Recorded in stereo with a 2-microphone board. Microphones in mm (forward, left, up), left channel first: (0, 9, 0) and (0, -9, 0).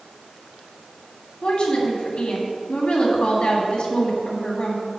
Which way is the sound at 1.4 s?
50° left (ahead or behind).